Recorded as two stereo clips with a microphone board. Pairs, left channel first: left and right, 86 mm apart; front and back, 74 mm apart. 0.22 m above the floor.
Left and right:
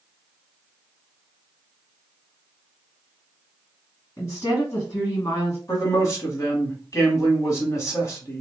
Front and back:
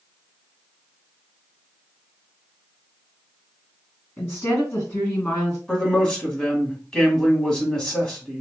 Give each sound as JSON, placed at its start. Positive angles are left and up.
{"t": 4.2, "sound": "a woman speaking", "azimuth_deg": 60, "distance_m": 1.9}
{"t": 5.7, "sound": "a man speaking", "azimuth_deg": 75, "distance_m": 1.2}